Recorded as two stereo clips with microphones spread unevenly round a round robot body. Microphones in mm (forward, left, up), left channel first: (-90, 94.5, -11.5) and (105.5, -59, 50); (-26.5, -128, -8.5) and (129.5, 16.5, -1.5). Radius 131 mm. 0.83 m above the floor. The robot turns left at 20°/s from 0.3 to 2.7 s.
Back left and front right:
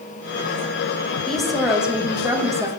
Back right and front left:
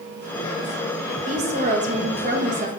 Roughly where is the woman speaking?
Left.